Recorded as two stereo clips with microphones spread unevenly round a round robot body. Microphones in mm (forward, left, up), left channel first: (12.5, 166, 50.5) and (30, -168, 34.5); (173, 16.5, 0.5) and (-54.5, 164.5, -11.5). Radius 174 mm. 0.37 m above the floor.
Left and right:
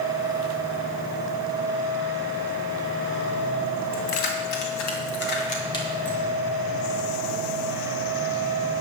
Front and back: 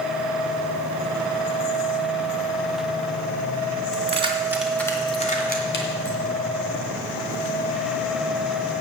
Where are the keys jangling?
85° left, 2.5 m; by 6.2 s 5° left, 3 m.